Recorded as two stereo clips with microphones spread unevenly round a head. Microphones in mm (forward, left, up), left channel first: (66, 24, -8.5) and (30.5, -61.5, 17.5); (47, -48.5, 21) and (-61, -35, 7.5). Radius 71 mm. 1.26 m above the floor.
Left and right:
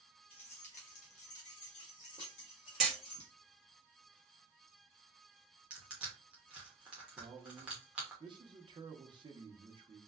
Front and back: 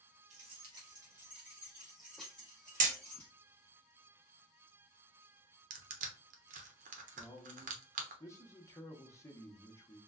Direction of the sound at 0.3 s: 125° left.